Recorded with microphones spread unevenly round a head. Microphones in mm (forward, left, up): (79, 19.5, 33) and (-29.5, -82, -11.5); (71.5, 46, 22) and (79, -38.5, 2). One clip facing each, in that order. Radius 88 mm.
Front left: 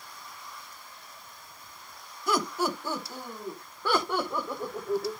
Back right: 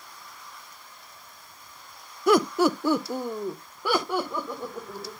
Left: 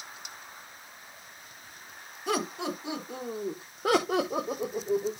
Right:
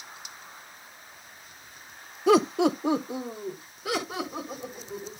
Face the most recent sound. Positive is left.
turn(degrees=120)